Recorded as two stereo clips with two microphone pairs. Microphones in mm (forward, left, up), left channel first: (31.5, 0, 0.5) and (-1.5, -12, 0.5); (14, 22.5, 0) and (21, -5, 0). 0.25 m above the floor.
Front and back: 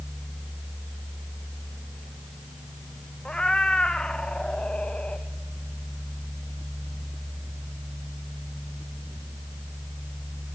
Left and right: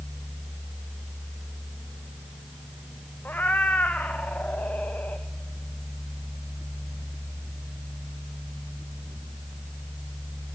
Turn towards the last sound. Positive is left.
turn(degrees=80)